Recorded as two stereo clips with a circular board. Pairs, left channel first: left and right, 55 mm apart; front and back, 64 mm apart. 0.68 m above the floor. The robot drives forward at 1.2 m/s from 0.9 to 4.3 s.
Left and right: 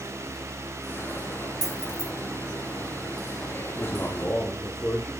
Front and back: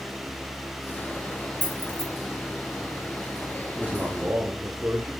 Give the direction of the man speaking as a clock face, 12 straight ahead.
9 o'clock.